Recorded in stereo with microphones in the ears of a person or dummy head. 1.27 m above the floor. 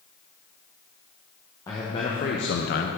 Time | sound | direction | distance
1.7 | a man speaking | 20° left (ahead or behind) | 1.3 m